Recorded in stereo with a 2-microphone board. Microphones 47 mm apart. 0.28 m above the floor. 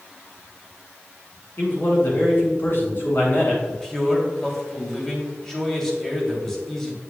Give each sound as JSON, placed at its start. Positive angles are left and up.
{"t": 1.6, "sound": "a man speaking", "side_deg": 55, "distance_m": 2.5}
{"t": 3.7, "sound": "a man speaking", "side_deg": 10, "distance_m": 1.7}